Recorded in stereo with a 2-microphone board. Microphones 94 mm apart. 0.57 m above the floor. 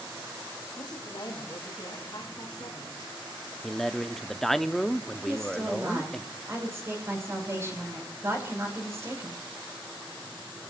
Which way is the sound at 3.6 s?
5° left (ahead or behind).